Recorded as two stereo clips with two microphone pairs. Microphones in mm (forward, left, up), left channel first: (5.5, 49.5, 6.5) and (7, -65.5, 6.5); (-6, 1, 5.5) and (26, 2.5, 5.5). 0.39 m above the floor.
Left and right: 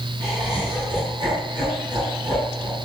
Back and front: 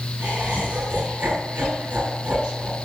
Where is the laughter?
35° right, 6.5 m.